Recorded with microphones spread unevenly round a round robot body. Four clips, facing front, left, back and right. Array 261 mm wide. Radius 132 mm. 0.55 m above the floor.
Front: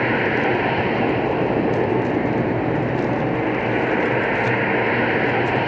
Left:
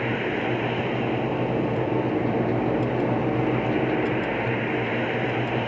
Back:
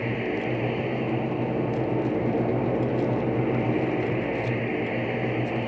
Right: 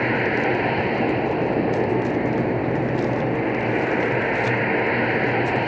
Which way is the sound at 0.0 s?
25° right.